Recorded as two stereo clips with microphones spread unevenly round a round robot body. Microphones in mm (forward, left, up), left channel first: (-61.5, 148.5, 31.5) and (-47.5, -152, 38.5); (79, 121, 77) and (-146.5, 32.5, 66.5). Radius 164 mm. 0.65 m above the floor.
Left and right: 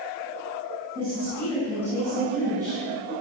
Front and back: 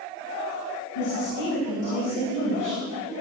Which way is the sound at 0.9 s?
15° right.